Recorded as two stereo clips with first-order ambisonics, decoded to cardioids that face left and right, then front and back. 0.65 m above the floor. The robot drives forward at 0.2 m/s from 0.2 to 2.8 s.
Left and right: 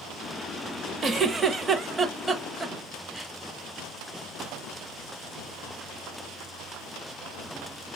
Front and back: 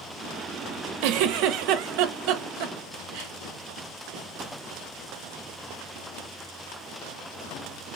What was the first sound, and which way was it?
A giggle, 160° right.